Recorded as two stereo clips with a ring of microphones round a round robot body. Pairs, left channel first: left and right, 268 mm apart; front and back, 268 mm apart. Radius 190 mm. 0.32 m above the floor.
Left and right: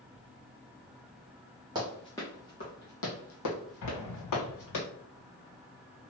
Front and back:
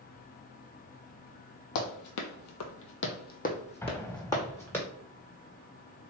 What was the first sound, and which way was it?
Running footsteps, 10° right.